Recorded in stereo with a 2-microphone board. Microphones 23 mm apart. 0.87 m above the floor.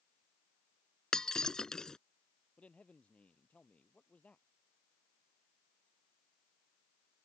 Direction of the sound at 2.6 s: 85° left.